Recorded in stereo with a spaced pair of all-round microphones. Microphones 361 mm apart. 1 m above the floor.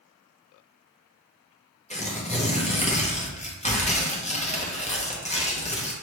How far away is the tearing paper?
About 0.6 m.